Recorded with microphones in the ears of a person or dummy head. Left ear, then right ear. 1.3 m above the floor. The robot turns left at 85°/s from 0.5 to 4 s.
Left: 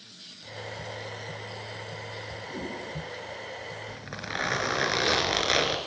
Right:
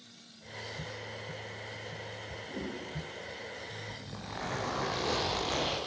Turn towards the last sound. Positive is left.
turn(degrees=50)  # may be behind; listen again after turning